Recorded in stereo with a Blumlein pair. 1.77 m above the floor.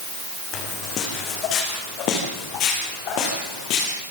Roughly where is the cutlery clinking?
I don't hear cutlery clinking.